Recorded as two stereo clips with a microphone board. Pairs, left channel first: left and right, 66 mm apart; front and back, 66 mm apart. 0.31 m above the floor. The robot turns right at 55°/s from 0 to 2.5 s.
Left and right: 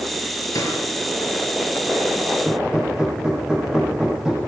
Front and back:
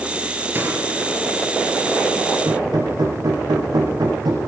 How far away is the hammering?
About 6 m.